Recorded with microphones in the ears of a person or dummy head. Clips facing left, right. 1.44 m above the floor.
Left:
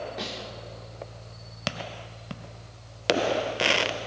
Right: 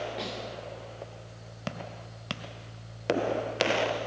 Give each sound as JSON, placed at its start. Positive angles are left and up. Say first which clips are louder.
{"t": 0.2, "sound": "a snare drum", "louder": "even", "side_deg": 0, "distance_m": 5.0}